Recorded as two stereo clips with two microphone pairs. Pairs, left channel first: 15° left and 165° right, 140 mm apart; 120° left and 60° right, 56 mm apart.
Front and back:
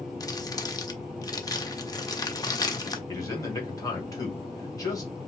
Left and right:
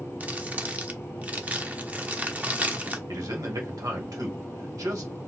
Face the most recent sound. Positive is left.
turn(degrees=-50)